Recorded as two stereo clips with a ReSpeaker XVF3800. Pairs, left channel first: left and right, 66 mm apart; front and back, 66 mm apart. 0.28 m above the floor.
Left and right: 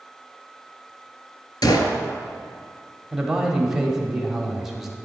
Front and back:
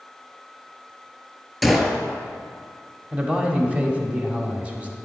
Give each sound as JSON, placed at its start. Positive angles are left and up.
{"t": 1.6, "sound": "a gunshot", "azimuth_deg": 90, "distance_m": 0.7}
{"t": 3.1, "sound": "a man speaking", "azimuth_deg": -160, "distance_m": 0.9}